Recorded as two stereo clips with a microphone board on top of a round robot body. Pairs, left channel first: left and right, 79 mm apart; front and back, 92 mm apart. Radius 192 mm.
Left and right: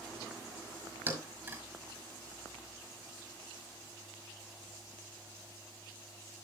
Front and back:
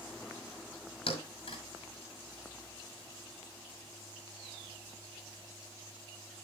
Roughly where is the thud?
Ahead.